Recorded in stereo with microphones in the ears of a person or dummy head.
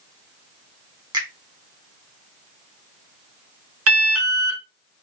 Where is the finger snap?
25° right (ahead or behind), 1.1 m.